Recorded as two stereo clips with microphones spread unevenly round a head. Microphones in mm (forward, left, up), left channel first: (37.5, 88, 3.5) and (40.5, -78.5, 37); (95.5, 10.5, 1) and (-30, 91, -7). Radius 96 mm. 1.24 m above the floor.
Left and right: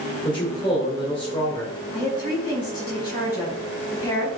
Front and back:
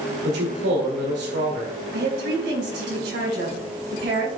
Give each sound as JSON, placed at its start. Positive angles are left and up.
{"t": 0.2, "sound": "a man speaking", "azimuth_deg": 160, "distance_m": 2.5}
{"t": 1.9, "sound": "a woman speaking", "azimuth_deg": 160, "distance_m": 4.5}